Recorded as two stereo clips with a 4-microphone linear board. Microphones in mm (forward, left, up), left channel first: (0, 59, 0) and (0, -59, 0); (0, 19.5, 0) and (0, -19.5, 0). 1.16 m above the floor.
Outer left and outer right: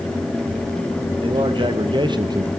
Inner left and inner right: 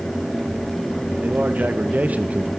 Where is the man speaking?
45° right (ahead or behind), 1.2 m; by 2.5 s 35° right (ahead or behind), 0.5 m.